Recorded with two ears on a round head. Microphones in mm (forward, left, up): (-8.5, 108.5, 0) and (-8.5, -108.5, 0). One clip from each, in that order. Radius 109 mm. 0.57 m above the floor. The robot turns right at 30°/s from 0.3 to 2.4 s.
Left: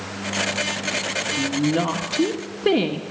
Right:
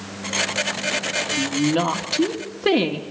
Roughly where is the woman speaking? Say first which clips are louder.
Right 1 dB; ahead right.